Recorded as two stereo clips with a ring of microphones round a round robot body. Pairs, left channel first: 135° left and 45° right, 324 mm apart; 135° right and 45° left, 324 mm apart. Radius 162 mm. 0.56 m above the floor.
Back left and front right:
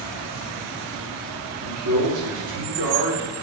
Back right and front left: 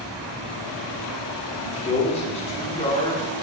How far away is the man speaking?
About 1.6 m.